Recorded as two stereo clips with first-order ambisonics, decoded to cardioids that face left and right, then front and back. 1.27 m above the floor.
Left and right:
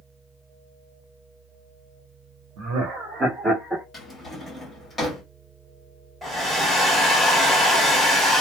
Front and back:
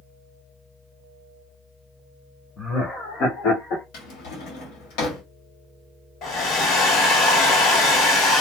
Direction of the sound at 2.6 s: 80° right.